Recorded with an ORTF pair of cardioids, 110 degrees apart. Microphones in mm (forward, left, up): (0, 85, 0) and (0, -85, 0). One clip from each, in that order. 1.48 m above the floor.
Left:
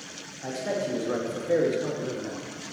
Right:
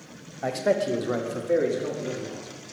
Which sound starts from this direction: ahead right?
A man speaking, at 0.4 s.